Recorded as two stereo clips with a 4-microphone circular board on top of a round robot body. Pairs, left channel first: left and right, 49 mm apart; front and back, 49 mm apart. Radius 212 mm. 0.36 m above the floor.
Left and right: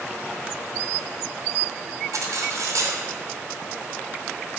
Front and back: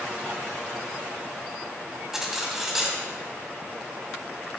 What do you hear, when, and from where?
2.1 s cutlery clinking: 100° right, 2.5 m